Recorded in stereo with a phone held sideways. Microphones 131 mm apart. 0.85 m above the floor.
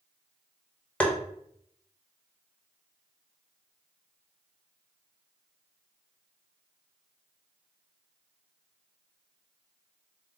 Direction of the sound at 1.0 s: 10° left (ahead or behind).